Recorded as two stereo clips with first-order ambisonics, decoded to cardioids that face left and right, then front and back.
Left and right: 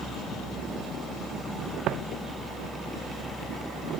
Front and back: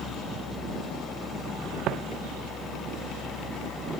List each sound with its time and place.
1.9 s footsteps: 135° right